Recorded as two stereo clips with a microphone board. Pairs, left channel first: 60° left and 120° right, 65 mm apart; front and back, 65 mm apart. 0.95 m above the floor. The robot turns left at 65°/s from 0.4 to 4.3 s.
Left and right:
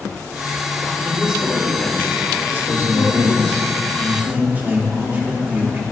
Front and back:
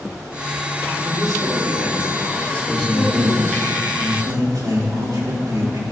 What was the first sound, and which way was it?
A man speaking, 175° left.